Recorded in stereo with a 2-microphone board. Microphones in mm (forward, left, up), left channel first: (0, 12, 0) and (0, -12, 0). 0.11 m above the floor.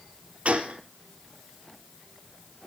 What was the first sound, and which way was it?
A gunshot, 60° right (ahead or behind).